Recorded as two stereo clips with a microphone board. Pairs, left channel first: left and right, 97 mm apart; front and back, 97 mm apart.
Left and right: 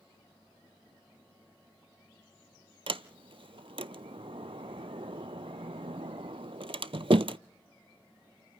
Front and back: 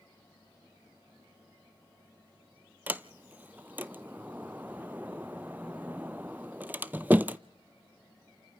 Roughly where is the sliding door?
Right.